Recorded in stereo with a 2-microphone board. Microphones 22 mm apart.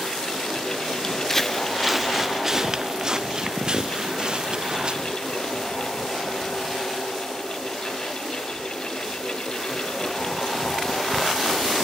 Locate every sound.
1.0 s footsteps: 35° left (ahead or behind), 0.9 m; by 4.9 s 35° right (ahead or behind), 3 m